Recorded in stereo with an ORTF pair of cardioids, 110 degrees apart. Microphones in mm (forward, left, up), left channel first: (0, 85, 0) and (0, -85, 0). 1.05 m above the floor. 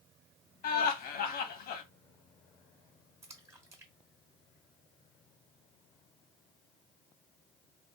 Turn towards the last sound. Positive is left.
turn(degrees=-15)